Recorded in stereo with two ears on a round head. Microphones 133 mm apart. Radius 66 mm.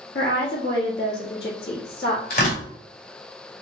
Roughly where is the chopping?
I don't hear chopping.